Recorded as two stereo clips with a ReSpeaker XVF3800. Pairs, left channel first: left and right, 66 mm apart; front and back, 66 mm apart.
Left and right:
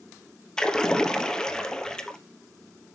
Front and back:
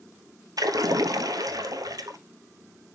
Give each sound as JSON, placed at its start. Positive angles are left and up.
{"t": 0.6, "sound": "a splash", "azimuth_deg": 170, "distance_m": 1.0}